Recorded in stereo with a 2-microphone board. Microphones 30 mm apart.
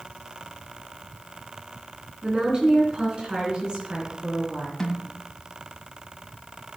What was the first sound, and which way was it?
A woman speaking, 35° right (ahead or behind).